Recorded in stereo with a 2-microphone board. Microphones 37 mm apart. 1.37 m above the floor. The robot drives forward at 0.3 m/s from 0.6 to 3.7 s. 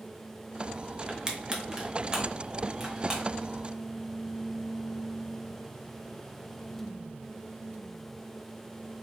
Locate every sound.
1.1 s crushing: 25° right (ahead or behind), 0.6 m; by 3.2 s 10° right (ahead or behind), 1.2 m